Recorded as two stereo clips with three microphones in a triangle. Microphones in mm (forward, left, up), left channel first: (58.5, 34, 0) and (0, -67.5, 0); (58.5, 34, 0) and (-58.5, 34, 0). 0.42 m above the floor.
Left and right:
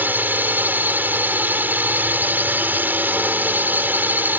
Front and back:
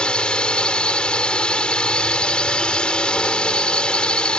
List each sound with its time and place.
0.0 s a drone: 70° right